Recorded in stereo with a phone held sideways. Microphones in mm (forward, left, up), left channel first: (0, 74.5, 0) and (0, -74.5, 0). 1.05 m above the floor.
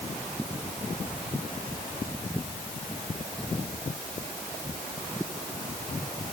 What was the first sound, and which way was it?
Only background noise.